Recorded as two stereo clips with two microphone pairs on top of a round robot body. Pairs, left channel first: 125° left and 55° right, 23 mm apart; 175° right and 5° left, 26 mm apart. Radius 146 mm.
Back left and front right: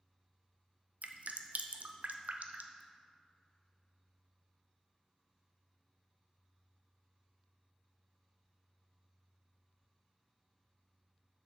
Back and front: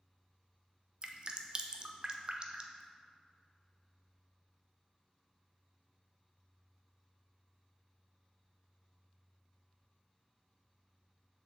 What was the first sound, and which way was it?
Dripping, 45° right.